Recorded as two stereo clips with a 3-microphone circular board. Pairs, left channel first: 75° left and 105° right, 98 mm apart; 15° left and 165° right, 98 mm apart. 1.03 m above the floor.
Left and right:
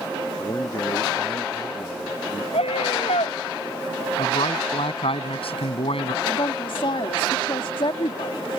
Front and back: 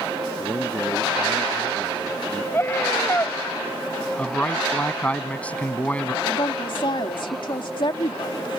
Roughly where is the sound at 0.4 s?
Behind left.